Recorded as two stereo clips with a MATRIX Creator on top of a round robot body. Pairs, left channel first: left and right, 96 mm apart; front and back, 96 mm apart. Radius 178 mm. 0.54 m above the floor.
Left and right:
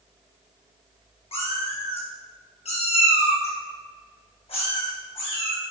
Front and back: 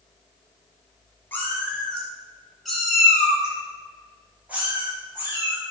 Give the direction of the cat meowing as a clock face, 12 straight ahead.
10 o'clock.